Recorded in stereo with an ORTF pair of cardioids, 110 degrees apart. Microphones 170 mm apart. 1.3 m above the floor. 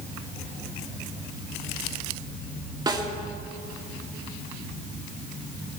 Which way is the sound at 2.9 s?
25° right.